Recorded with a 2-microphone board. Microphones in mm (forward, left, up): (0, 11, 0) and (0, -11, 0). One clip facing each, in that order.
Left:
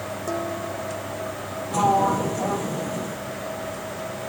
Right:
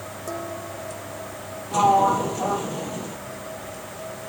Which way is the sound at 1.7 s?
15° right (ahead or behind).